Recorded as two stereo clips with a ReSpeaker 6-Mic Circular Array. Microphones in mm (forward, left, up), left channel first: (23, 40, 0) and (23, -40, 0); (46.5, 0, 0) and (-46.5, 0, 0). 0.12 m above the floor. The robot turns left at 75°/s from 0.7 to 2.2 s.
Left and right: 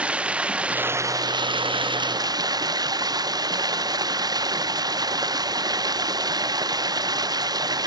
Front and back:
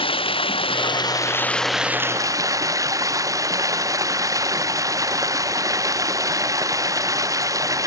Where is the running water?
15° right; by 7.9 s 130° right.